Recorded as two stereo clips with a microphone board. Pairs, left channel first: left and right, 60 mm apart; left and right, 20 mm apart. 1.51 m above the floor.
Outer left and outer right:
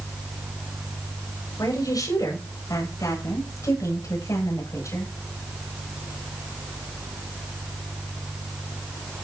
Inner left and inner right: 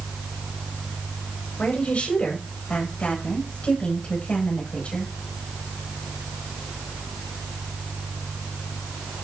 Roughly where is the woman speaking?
Left.